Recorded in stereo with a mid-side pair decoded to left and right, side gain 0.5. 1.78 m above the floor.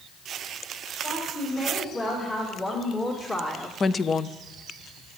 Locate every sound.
1.0 s a woman speaking: 35° left, 5.5 m; by 3.7 s 25° left, 1.4 m
3.8 s a woman speaking: 40° left, 0.6 m